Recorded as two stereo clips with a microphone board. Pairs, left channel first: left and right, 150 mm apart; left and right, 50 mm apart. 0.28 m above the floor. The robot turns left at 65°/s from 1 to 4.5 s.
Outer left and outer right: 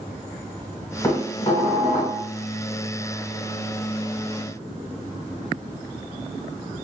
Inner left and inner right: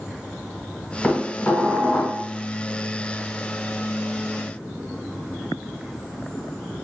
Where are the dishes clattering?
155° left, 1.5 m; by 2.2 s 80° left, 1.5 m.